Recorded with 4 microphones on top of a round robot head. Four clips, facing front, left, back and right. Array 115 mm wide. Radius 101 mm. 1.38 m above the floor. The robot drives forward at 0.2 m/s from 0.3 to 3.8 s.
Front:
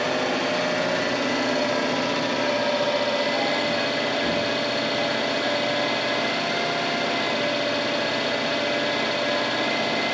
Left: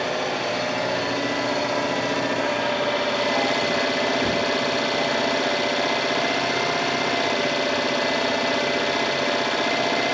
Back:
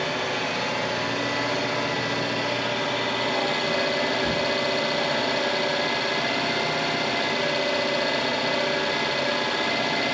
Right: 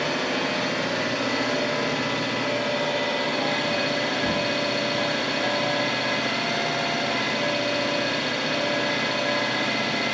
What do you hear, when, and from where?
0.0 s an engine running: 35° left, 0.8 m; by 10.1 s 95° left, 0.5 m